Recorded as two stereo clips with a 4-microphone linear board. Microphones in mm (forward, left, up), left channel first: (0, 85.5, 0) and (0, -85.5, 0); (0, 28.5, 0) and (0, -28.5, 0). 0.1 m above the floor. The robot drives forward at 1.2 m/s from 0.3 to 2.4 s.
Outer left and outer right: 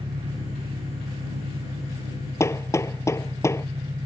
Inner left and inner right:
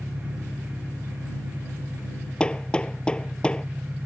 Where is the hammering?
15° left (ahead or behind).